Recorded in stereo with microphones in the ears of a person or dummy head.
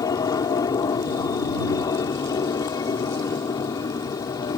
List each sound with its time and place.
0.0 s an aircraft: 25° left (ahead or behind)